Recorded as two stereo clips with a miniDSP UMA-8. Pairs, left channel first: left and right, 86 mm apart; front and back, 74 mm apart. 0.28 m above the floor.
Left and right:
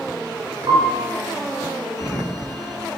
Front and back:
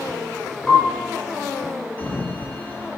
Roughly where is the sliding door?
Ahead left.